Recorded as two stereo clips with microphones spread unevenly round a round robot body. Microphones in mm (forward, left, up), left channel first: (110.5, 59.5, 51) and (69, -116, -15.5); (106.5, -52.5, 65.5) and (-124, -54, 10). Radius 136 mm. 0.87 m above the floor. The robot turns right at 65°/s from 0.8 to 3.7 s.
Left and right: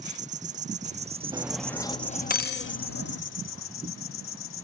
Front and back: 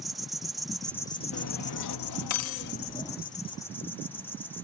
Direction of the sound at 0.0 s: 100° right.